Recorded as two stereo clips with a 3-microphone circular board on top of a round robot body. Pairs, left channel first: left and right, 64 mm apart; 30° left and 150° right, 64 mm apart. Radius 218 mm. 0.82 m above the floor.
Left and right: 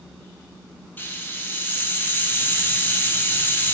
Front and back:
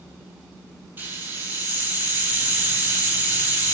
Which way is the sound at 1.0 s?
150° left.